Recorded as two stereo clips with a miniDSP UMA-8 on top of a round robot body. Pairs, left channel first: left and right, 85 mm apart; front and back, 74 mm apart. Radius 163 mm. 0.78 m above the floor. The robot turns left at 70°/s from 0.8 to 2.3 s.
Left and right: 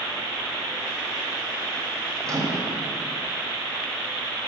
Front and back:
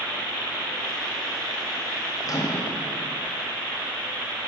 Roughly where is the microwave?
Ahead right.